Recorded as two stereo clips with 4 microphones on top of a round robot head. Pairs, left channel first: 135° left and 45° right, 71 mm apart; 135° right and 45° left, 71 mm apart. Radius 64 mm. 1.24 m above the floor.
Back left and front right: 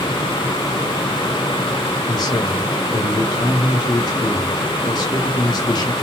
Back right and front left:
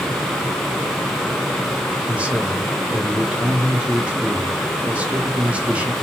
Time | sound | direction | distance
2.1 | a man speaking | 120° left | 1.7 m